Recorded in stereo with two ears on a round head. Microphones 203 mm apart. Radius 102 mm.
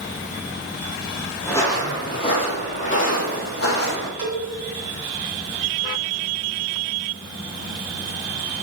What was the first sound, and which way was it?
Footsteps, 10° left (ahead or behind).